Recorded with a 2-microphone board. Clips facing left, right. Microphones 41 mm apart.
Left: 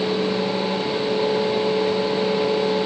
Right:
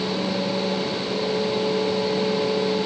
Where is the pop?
No pop in this recording.